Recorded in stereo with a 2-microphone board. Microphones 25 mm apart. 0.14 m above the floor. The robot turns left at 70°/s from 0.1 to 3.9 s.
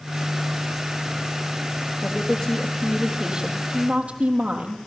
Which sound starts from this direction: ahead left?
A woman speaking, at 2.0 s.